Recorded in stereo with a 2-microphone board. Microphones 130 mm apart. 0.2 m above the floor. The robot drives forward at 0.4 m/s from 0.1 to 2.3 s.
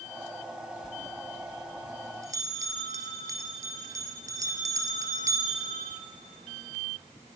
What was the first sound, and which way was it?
A bell, 35° right (ahead or behind).